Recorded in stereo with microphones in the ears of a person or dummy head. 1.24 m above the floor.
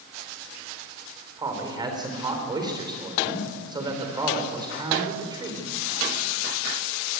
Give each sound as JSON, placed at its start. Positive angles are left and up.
{"t": 1.4, "sound": "a man speaking", "side_deg": -20, "distance_m": 3.5}